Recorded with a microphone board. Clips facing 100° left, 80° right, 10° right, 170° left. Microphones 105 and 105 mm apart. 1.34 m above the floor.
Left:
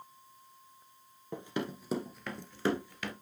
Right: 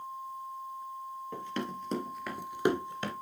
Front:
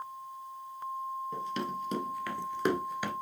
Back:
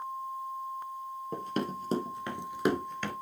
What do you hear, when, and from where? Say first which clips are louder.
1.3 s running footsteps: left 1 dB, back 5 dB; 165° left, 2.0 m; by 3.1 s 70° right, 1.5 m